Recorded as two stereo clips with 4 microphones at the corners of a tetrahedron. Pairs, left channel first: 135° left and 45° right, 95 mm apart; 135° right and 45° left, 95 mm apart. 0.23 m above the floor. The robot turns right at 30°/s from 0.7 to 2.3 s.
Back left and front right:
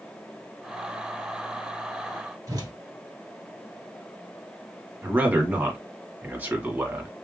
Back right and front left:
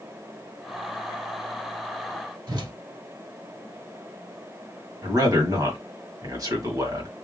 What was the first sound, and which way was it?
A whoosh, 5° left.